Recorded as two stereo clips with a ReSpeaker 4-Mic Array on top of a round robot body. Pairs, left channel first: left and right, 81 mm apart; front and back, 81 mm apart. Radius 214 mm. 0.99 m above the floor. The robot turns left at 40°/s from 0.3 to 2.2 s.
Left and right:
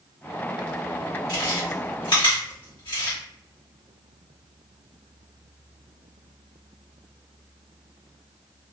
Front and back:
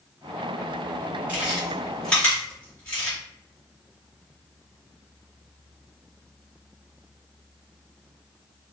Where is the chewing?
105° left, 2.0 m; by 3.2 s 70° left, 2.0 m.